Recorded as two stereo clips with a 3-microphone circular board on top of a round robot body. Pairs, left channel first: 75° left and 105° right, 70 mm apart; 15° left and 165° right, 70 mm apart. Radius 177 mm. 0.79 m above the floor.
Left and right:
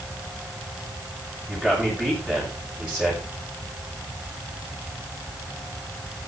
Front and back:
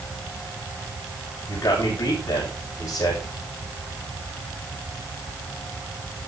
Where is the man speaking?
30° right, 7 m.